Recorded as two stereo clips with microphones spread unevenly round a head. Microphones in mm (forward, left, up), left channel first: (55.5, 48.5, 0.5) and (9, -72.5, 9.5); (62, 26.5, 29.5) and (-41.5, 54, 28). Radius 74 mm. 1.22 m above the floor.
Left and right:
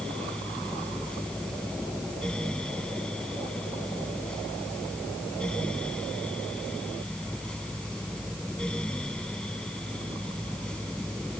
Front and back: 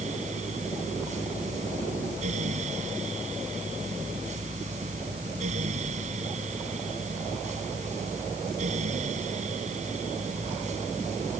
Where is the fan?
155° left.